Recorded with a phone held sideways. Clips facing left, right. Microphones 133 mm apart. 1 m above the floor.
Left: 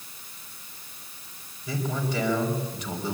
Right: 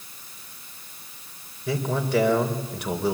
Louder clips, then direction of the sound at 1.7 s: Right 4 dB; 65° right (ahead or behind).